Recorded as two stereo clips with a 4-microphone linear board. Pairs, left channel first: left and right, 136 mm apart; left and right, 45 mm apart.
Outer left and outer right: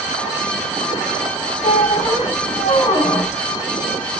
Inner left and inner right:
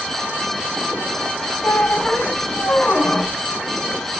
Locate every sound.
1.6 s a squeak: 45° left (ahead or behind), 0.9 m